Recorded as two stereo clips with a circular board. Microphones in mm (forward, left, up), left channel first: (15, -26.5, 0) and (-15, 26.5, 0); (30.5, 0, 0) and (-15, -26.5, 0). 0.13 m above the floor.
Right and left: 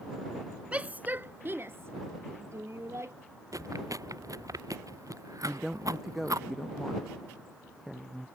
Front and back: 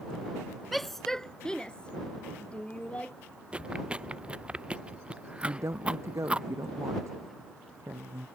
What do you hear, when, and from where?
0.7 s a shout: 115° left; by 3.1 s 90° left
3.5 s chewing: 140° left
5.4 s a woman speaking: 155° right